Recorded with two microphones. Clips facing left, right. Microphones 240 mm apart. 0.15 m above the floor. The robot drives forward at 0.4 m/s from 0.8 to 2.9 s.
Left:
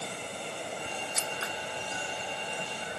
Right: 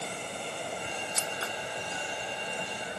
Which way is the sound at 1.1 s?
35° right (ahead or behind).